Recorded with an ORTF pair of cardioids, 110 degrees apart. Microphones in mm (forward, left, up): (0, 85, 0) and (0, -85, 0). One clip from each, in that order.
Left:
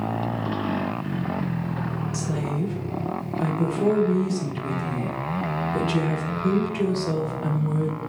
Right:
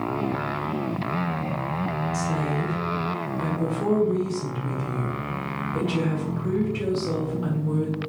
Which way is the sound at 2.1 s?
50° left.